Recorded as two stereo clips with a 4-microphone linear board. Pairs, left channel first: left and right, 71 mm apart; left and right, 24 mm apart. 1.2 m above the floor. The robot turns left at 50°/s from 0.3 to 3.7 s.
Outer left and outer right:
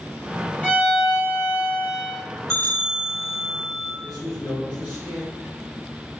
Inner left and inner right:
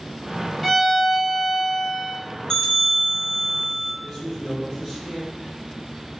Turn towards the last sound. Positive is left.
turn(degrees=-10)  # may be behind; listen again after turning